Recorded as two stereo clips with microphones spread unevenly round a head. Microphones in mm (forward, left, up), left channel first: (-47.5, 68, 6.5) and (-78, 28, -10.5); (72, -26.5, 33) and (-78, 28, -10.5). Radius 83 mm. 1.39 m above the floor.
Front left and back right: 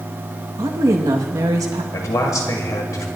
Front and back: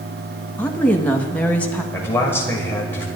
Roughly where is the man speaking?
Ahead left.